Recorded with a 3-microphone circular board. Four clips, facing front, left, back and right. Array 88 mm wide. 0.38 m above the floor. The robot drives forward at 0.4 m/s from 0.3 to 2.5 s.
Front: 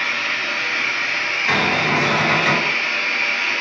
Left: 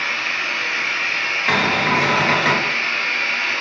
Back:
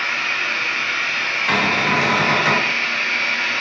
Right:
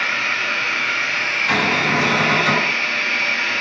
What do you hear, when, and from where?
0.0 s running water: 100° right, 1.3 m; by 3.6 s 130° right, 1.7 m
1.5 s a cupboard door: 95° left, 1.2 m; by 2.7 s 120° left, 1.3 m